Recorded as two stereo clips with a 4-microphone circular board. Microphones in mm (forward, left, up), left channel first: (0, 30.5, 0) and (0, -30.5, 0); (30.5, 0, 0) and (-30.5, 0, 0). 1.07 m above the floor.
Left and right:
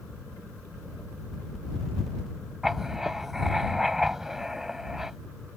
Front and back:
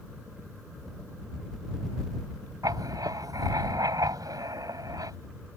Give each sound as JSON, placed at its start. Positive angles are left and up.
{"t": 2.6, "sound": "writing", "azimuth_deg": -175}